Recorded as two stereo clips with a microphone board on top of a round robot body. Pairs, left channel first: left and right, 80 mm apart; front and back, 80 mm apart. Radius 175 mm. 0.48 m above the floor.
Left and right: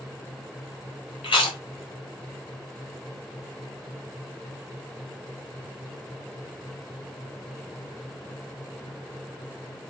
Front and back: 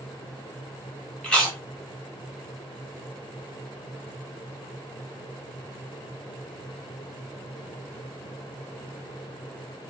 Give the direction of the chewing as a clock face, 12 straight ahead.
9 o'clock.